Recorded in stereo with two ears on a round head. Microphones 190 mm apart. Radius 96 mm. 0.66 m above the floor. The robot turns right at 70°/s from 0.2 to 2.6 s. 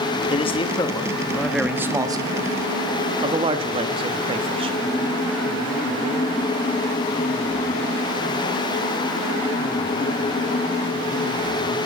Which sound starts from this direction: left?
A man speaking, at 0.3 s.